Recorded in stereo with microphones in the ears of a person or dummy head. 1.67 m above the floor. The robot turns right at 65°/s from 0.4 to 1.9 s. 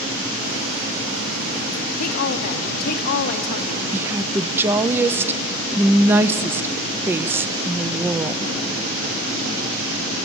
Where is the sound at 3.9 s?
10° right (ahead or behind), 0.7 m.